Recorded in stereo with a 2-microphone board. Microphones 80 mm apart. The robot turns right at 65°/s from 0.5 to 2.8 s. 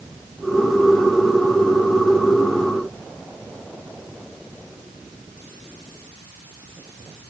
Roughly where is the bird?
I don't hear a bird.